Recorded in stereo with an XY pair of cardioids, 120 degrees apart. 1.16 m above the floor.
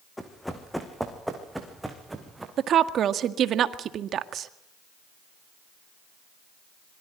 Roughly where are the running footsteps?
Ahead.